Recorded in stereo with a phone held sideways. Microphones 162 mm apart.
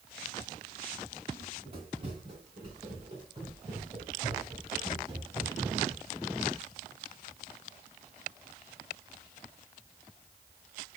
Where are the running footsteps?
35° right (ahead or behind), 4.5 m; by 6.0 s 30° right (ahead or behind), 8.5 m.